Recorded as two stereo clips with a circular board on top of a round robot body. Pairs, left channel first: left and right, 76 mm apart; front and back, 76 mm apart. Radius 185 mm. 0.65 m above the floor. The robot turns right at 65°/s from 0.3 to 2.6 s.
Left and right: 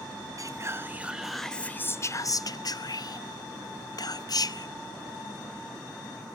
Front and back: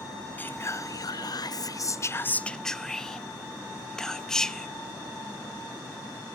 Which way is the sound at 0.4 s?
65° right.